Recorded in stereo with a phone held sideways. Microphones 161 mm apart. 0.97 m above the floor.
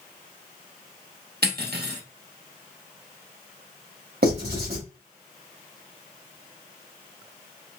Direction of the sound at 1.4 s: 85° right.